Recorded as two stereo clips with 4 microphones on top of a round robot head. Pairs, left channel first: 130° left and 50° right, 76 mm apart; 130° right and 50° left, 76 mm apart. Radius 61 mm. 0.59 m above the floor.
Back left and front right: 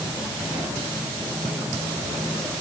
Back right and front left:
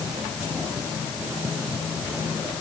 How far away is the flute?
I don't hear a flute.